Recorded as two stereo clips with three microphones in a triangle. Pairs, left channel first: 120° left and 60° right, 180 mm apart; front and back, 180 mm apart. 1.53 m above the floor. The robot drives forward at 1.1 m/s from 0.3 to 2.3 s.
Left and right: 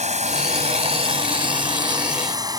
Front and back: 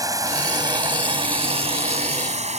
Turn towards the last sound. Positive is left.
turn(degrees=-130)